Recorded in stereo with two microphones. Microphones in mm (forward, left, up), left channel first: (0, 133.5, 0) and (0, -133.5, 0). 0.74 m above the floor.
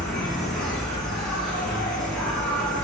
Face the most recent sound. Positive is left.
turn(degrees=0)  # may be behind; listen again after turning